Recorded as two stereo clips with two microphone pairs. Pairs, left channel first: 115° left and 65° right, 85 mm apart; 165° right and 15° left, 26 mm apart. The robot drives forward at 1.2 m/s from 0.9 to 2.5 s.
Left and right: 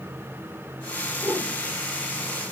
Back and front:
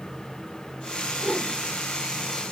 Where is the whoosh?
30° left, 7.5 m; by 1.5 s 35° left, 7.5 m.